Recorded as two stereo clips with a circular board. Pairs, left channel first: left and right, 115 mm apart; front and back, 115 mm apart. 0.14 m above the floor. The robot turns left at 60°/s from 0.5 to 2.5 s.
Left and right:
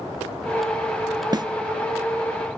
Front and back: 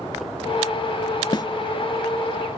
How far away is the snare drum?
About 0.5 m.